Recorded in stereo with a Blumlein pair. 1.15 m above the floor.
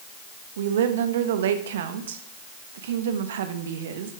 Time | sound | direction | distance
0.6 | a woman speaking | 60° right | 1.3 m